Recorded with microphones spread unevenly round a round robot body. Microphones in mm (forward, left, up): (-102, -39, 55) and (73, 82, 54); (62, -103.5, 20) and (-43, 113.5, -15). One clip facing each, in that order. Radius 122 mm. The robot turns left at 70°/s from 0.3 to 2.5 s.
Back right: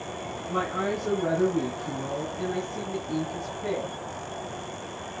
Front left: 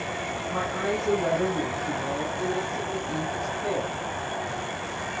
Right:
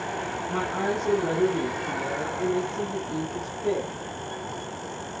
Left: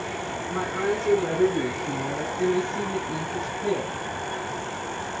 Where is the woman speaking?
90° right, 7 m; by 4.0 s 130° left, 7 m.